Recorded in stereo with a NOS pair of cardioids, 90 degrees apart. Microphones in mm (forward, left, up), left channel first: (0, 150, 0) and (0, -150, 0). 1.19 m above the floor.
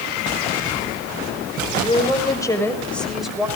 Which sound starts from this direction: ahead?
A woman speaking, at 1.7 s.